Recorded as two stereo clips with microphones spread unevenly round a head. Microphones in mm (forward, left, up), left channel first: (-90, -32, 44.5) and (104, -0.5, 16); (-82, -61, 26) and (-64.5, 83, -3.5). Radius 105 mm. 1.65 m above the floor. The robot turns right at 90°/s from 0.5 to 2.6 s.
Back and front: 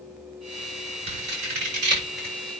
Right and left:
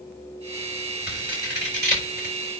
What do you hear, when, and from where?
1.1 s scissors: 50° right, 7 m; by 2.3 s 65° left, 7 m